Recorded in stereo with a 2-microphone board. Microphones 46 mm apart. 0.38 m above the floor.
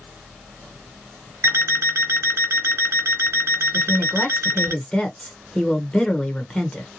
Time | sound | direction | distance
1.4 | an alarm clock | 60° right (ahead or behind) | 1.0 m
3.7 | a woman speaking | 20° left (ahead or behind) | 0.9 m